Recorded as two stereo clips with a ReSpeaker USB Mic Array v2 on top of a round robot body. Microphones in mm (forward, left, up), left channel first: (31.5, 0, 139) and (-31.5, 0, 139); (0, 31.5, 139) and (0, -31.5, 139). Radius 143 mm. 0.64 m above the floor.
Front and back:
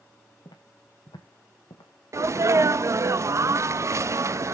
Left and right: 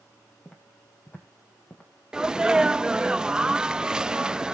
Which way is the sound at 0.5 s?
20° left.